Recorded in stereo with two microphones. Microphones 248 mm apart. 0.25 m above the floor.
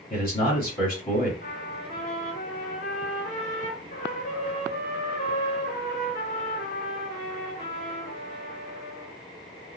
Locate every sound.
0.1 s a man speaking: 35° left (ahead or behind), 1.3 m
1.4 s a trumpet: 40° left (ahead or behind), 2 m